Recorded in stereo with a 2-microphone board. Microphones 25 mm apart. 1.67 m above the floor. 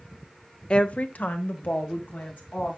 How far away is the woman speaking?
About 0.6 m.